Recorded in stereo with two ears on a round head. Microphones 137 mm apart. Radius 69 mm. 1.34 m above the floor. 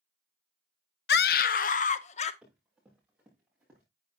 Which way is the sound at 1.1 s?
80° left.